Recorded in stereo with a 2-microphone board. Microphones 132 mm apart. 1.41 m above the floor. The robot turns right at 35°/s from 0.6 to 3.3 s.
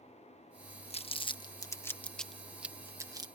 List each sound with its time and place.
0.9 s crumpling: 50° left (ahead or behind); by 3.2 s 30° right (ahead or behind)